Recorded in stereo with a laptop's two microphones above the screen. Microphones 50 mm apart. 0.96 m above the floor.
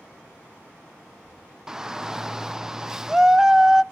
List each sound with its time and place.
1.7 s a shout: 10° right (ahead or behind), 0.6 m